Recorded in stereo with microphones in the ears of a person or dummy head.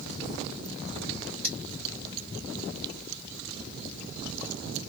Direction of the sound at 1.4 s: 15° left (ahead or behind).